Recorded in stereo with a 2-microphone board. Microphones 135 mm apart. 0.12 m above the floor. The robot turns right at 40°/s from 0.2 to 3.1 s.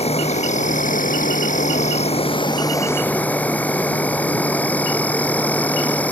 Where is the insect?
55° left; by 6.1 s 170° left.